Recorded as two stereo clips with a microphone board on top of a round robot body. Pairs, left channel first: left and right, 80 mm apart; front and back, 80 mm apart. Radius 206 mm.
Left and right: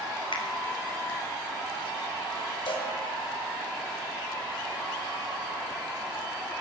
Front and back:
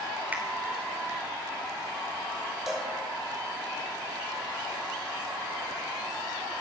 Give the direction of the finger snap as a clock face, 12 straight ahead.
8 o'clock.